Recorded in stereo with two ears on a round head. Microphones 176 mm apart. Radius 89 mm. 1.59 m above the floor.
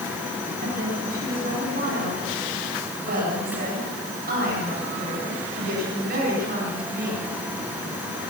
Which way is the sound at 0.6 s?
45° right (ahead or behind).